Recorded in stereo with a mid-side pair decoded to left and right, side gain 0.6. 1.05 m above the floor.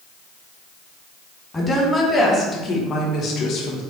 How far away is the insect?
No insect in this recording.